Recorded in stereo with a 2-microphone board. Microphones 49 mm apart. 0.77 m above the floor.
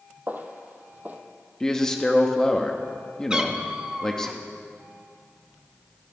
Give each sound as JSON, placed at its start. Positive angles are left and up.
{"t": 0.3, "sound": "footsteps", "side_deg": -35, "distance_m": 1.4}
{"t": 1.6, "sound": "a man speaking", "side_deg": 10, "distance_m": 1.2}
{"t": 3.3, "sound": "a cat meowing", "side_deg": -15, "distance_m": 0.9}